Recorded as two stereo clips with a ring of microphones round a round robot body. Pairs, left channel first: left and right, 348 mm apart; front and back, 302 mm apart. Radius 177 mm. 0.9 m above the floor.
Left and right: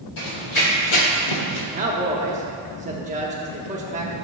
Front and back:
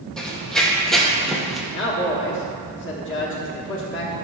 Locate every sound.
0.2 s running footsteps: 85° left, 2.5 m; by 1.6 s 90° left, 1.5 m
1.7 s a man speaking: 30° right, 1.1 m